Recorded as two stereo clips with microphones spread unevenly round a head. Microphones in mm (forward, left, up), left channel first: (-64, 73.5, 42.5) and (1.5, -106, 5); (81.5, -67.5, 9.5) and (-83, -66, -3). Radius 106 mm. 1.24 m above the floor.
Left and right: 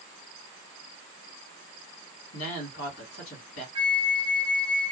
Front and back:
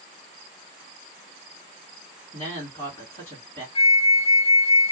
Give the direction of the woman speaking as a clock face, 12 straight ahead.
9 o'clock.